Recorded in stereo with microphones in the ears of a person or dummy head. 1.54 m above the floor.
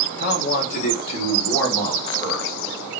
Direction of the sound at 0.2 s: 65° left (ahead or behind).